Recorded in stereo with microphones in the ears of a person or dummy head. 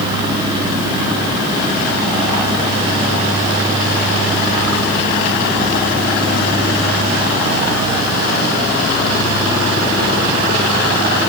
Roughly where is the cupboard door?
No cupboard door in this recording.